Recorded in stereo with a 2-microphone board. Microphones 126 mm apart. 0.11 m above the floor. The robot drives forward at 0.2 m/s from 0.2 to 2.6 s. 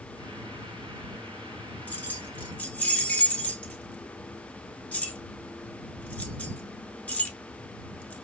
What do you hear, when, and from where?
1.9 s keys jangling: 15° left (ahead or behind), 0.8 m